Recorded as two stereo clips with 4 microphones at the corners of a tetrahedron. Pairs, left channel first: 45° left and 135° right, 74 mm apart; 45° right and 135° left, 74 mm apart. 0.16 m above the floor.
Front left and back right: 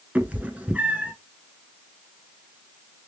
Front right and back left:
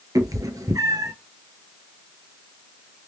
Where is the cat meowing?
155° left, 0.6 m.